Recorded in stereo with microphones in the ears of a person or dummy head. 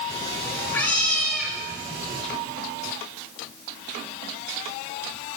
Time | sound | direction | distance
0.1 | a cat meowing | 25° left (ahead or behind) | 1.4 m